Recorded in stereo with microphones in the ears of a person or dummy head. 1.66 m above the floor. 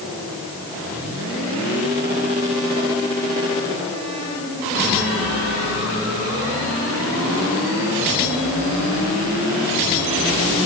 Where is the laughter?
I don't hear laughter.